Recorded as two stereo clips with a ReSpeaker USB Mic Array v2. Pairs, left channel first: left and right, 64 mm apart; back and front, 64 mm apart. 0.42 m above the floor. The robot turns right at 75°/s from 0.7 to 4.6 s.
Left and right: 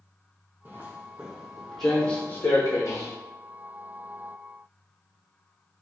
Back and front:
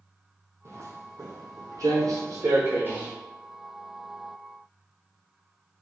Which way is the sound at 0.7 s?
30° right.